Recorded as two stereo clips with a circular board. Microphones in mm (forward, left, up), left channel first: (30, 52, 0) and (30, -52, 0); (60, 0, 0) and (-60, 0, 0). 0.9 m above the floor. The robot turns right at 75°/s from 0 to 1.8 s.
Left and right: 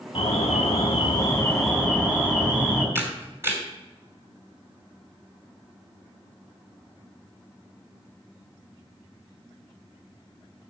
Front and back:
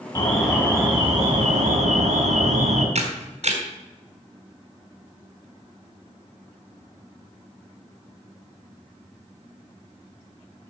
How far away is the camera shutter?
About 2.5 m.